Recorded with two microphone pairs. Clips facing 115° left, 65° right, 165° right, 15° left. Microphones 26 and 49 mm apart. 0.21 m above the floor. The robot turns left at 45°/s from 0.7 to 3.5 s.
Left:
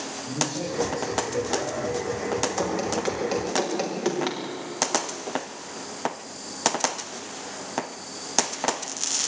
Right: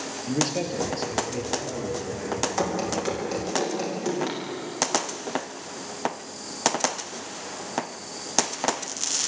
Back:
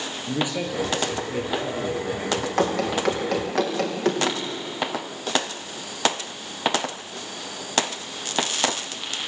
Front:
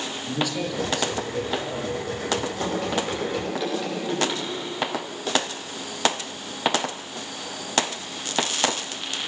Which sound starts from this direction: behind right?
Running footsteps, at 2.6 s.